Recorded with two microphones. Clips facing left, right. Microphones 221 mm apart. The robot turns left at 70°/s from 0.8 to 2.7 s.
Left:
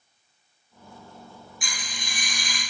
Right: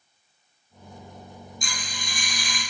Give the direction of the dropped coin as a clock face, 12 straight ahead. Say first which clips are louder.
Right 2 dB; 8 o'clock.